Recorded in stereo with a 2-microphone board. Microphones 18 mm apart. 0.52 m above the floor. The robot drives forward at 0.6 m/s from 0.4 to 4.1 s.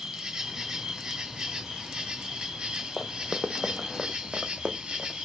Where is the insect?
50° right (ahead or behind), 2.5 m; by 5.2 s 75° right (ahead or behind), 2 m.